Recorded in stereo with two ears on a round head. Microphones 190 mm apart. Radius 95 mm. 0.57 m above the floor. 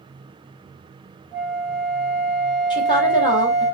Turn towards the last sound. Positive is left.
turn(degrees=20)  # may be behind; listen again after turning